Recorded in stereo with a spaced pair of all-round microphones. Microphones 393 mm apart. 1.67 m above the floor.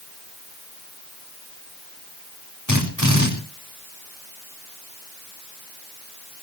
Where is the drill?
55° left (ahead or behind), 6 m.